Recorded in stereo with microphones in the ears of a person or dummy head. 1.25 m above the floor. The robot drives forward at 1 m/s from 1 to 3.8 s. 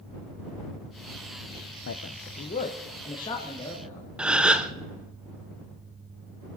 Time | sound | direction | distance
1.9 | a man speaking | 60° left (ahead or behind) | 0.7 m
4.2 | a gasp | 5° right (ahead or behind) | 0.6 m